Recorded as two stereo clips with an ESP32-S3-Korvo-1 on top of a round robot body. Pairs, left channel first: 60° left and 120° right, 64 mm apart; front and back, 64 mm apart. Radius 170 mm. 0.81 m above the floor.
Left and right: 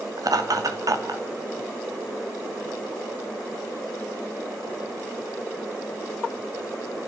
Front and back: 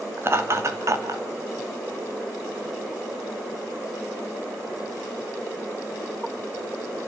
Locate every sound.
0.2 s laughter: 130° right, 2.5 m; by 1.2 s 150° right, 2.5 m